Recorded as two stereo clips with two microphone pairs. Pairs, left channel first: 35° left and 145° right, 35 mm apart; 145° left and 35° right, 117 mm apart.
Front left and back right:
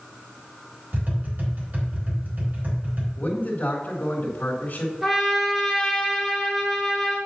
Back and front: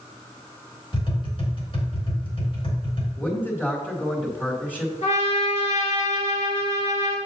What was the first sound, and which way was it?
Tapping, 175° right.